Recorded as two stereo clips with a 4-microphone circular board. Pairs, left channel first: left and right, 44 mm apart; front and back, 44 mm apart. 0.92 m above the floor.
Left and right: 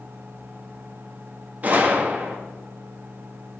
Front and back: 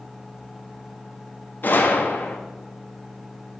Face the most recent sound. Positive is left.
turn(degrees=-40)